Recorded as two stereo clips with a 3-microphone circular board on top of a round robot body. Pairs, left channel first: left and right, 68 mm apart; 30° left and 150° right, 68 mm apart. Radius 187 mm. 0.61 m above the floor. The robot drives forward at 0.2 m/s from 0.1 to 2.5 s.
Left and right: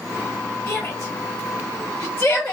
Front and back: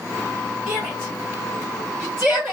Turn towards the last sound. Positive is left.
turn(degrees=145)